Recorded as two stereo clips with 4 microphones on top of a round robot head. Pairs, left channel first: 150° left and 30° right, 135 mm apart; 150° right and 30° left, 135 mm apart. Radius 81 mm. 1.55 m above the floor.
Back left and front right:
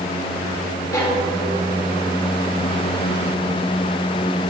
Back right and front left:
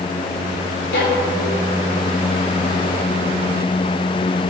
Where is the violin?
145° right, 1.9 m.